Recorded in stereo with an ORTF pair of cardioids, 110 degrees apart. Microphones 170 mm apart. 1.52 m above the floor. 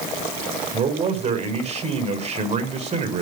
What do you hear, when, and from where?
0.7 s a man speaking: 40° right, 6 m